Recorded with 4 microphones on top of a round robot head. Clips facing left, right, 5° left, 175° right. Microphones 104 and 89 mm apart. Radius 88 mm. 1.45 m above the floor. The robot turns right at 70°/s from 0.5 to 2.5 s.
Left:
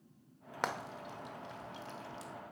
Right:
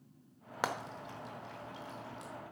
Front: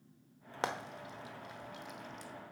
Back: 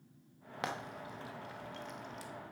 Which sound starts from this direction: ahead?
Frying, at 0.6 s.